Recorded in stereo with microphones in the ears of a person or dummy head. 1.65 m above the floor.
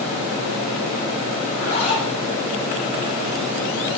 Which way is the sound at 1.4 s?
30° left (ahead or behind).